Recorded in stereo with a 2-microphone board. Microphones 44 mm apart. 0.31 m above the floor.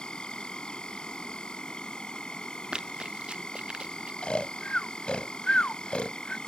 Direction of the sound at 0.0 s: 15° left (ahead or behind).